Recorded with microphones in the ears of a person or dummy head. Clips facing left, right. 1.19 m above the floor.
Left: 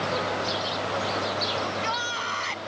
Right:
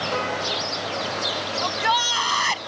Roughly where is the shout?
Right.